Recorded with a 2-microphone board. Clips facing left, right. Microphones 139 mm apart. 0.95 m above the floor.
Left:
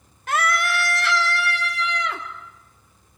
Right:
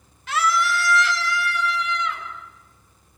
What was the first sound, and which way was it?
A scream, 50° left (ahead or behind).